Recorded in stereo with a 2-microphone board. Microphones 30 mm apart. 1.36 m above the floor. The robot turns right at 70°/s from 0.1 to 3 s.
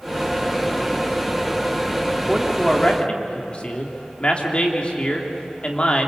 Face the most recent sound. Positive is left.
turn(degrees=35)